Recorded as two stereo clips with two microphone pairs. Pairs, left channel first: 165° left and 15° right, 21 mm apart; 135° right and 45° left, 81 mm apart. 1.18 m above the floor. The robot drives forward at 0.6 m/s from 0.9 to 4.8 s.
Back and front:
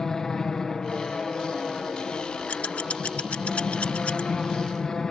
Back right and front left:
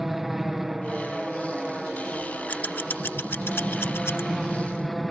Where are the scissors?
160° left; by 4.2 s 170° left.